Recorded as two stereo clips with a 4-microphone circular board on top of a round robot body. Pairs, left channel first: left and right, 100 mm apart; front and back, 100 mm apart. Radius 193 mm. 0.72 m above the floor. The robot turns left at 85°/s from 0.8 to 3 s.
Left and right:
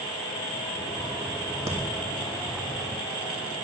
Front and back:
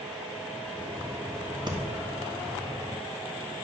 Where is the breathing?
145° right, 2.0 m; by 1.8 s 155° right, 2.0 m.